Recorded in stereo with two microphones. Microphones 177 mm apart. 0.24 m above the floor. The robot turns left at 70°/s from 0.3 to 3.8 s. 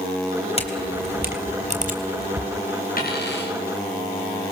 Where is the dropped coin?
125° left, 7.5 m; by 3.6 s 80° left, 7.5 m.